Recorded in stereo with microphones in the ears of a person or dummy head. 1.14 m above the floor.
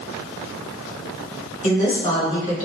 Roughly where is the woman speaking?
Left.